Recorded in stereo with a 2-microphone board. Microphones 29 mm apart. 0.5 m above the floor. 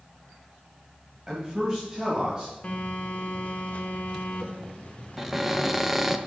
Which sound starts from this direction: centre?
A cupboard door, at 5.2 s.